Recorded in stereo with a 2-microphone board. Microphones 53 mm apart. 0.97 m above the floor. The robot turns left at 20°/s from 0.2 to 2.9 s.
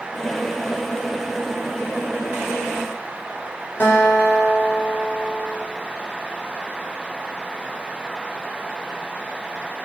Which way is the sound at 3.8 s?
45° left (ahead or behind).